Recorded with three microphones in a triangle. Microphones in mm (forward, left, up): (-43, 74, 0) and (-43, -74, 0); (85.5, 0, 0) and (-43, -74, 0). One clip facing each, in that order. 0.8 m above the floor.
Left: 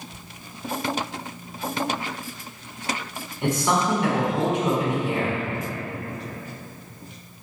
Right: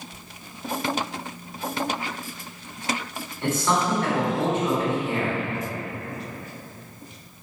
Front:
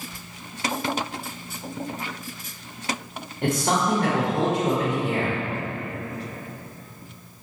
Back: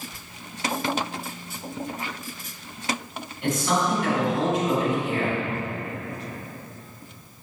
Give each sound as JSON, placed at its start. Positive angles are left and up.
{"t": 3.4, "sound": "a man speaking", "azimuth_deg": 20, "distance_m": 2.0}